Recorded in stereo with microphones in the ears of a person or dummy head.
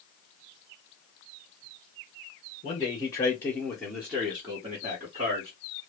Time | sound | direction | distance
2.6 | a man speaking | 35° left (ahead or behind) | 1.1 m